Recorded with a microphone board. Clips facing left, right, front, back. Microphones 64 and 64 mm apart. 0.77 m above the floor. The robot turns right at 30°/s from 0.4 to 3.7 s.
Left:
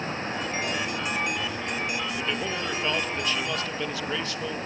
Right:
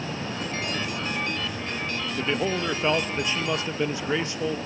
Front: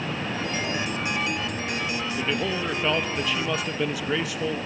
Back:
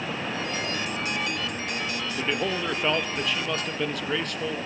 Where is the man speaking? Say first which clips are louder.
Right 3 dB, back 1 dB; 120° right, 0.6 m; by 4.6 s 75° right, 0.6 m.